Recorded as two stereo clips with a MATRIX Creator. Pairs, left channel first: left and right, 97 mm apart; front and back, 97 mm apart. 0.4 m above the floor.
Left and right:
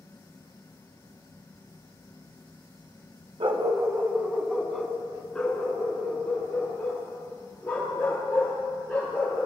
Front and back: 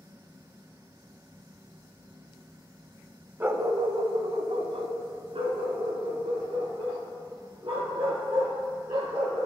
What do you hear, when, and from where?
3.4 s a dog barking: 110° right, 0.6 m; by 9.5 s 160° left, 4.5 m